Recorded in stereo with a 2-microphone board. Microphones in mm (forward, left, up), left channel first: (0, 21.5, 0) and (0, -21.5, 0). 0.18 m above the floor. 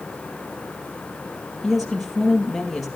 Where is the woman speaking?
5° right (ahead or behind), 4.5 m.